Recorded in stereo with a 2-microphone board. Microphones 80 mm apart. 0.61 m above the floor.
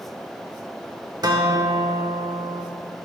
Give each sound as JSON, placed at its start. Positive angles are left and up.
{"t": 1.2, "sound": "a guitar", "side_deg": -55, "distance_m": 0.8}